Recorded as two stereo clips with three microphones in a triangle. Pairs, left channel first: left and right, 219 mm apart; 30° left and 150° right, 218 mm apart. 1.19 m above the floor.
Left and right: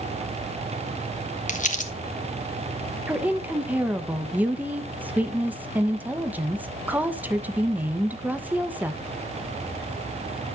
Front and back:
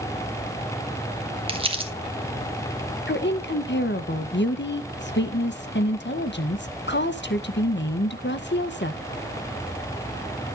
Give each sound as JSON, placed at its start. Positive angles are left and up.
{"t": 1.5, "sound": "crumpling", "azimuth_deg": 145, "distance_m": 1.3}
{"t": 3.1, "sound": "a woman speaking", "azimuth_deg": -10, "distance_m": 0.8}